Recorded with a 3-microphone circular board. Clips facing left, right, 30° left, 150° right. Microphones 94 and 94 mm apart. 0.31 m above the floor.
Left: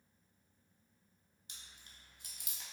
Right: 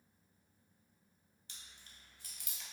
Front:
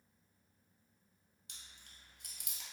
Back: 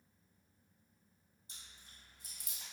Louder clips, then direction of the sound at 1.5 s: Even, even; 20° left.